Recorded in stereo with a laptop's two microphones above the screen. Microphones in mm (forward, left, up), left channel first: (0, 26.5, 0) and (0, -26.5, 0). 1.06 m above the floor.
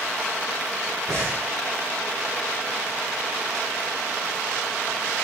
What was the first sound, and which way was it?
Breathing, 25° right (ahead or behind).